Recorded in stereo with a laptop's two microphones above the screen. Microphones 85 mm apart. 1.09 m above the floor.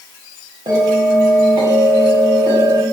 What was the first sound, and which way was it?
A bell, 65° right (ahead or behind).